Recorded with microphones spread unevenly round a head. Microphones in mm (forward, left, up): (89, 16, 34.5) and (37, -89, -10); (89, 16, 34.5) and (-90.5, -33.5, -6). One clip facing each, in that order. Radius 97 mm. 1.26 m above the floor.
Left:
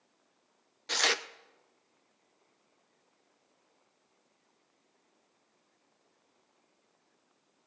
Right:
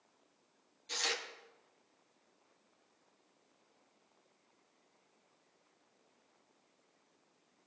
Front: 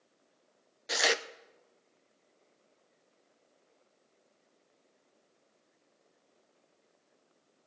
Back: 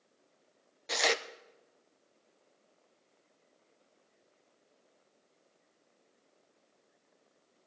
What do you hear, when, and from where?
0.9 s tearing paper: 105° left, 0.5 m